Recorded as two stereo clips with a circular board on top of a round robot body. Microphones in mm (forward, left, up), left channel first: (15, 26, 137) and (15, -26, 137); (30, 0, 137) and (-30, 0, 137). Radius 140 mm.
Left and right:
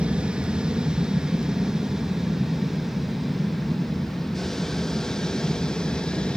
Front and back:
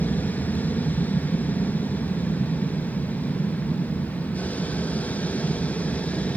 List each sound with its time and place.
0.0 s an aircraft: 35° right; by 6.4 s 35° left